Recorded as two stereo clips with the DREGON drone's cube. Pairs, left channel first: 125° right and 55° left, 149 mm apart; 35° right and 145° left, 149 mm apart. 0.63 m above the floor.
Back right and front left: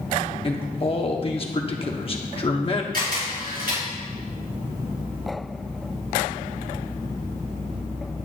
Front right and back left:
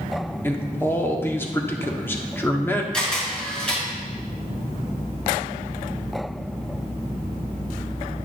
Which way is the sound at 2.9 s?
50° left.